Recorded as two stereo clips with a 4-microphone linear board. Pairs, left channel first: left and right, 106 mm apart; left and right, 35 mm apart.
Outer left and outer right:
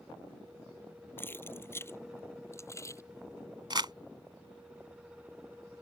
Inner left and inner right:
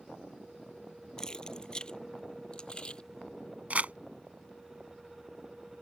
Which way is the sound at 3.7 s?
45° right (ahead or behind).